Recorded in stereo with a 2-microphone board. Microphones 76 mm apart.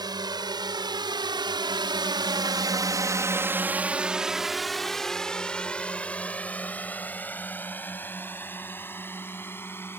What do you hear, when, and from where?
0.0 s a drone: 65° right (ahead or behind); by 10.0 s 30° left (ahead or behind)